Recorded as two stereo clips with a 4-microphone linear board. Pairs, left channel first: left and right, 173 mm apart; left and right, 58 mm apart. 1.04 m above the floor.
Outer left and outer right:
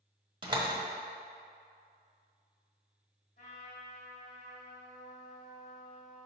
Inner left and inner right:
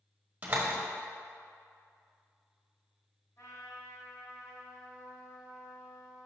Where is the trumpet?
65° left (ahead or behind), 2.5 m.